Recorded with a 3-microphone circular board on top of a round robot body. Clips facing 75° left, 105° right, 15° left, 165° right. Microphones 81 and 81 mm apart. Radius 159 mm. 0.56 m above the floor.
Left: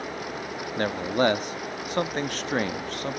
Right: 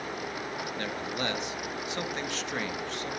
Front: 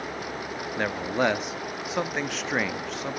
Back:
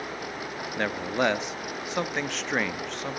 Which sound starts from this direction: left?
A man speaking, at 0.8 s.